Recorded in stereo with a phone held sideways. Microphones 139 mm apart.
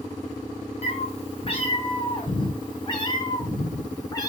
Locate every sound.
0.8 s a cat meowing: 50° left (ahead or behind), 2.5 m; by 4.3 s 25° left (ahead or behind), 4 m